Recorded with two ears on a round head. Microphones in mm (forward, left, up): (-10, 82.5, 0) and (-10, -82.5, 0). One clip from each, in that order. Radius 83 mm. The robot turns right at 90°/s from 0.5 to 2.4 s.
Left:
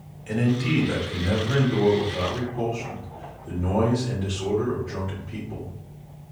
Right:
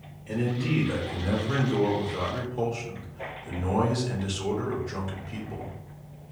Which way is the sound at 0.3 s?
115° left.